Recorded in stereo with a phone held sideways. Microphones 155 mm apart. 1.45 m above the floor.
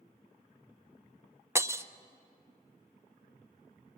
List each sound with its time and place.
1.6 s breaking glass: 15° right (ahead or behind), 0.6 m